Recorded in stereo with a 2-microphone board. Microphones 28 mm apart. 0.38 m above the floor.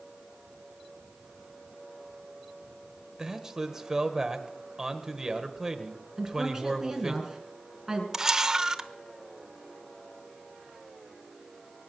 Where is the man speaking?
20° right (ahead or behind), 1.5 m.